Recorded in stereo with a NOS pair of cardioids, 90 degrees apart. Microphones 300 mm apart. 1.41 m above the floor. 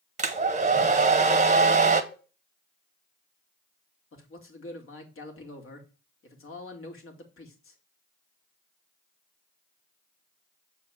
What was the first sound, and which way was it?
A hair dryer, 25° right.